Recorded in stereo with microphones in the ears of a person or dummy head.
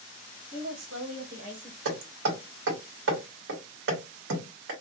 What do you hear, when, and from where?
0.5 s a woman speaking: 70° right (ahead or behind), 1.4 m; by 1.8 s 25° right (ahead or behind), 1.5 m
1.9 s hammering: 70° right (ahead or behind), 1.0 m